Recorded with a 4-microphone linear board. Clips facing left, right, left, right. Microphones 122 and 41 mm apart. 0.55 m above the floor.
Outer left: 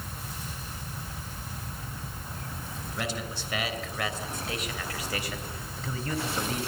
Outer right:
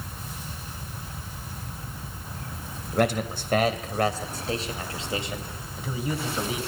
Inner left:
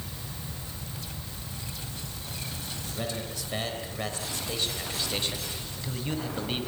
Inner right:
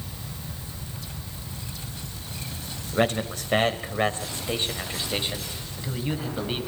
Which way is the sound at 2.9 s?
55° right (ahead or behind).